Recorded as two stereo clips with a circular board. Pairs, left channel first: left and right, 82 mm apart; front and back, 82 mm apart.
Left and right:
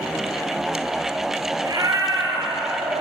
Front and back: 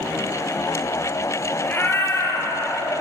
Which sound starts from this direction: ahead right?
A cat meowing, at 1.6 s.